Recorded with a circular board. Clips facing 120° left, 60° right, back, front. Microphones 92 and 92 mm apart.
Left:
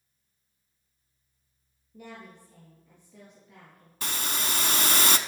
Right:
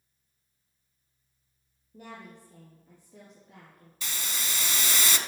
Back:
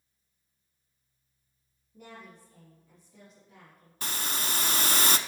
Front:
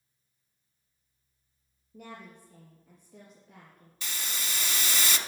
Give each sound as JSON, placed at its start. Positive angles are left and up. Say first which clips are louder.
{"t": 1.9, "sound": "a woman speaking", "louder": "even, front 2 dB", "azimuth_deg": -10, "distance_m": 3.5}
{"t": 4.0, "sound": "a hiss", "louder": "left 5 dB, back 5 dB", "azimuth_deg": 150, "distance_m": 0.7}